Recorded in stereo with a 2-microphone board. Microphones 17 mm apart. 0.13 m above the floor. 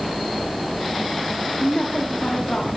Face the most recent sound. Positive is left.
turn(degrees=70)  # may be behind; listen again after turning